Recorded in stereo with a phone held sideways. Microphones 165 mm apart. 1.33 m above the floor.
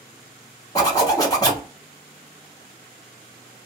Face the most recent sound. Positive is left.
turn(degrees=25)  # may be behind; listen again after turning